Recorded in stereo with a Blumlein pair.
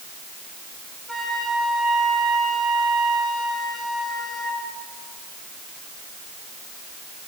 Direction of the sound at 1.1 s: 5° left.